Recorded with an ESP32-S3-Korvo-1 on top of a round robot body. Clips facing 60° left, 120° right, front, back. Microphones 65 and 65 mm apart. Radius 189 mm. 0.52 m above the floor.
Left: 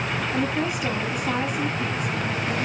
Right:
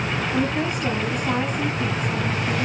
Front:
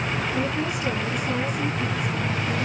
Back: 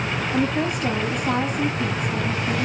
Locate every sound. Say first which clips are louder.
0.3 s a woman speaking: right 2 dB, back 3 dB; 140° left, 5.5 m